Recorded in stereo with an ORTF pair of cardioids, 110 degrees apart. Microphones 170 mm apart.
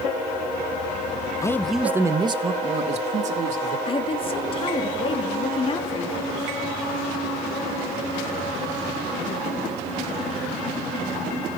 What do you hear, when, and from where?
1.4 s a man speaking: 20° left, 1.3 m; by 3.8 s 50° right, 4 m
3.9 s a woman speaking: 35° left, 3.5 m